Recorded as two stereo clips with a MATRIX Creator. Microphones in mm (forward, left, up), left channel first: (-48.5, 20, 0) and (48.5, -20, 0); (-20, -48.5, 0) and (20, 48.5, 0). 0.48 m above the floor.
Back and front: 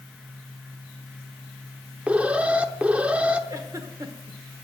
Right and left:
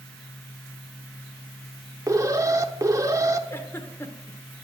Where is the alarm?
45° left, 0.8 m.